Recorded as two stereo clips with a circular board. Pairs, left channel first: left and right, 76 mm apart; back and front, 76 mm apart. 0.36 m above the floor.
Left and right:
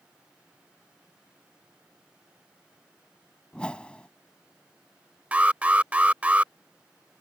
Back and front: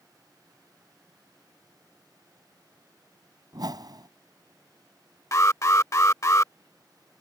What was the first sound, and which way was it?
A whoosh, 15° left.